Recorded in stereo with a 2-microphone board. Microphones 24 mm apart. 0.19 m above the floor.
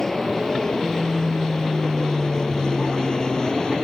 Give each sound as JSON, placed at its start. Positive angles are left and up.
{"t": 0.0, "sound": "an aircraft", "side_deg": 25}